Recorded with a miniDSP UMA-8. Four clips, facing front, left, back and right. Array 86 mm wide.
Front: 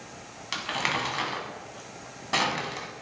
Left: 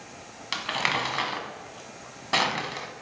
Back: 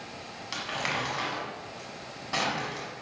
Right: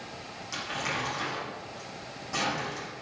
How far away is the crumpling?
About 1.5 m.